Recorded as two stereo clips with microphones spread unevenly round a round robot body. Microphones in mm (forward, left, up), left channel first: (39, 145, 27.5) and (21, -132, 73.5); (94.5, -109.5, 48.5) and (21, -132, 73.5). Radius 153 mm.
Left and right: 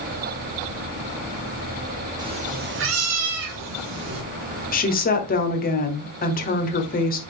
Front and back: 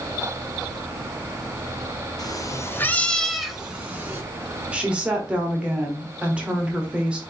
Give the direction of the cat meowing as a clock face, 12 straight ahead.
1 o'clock.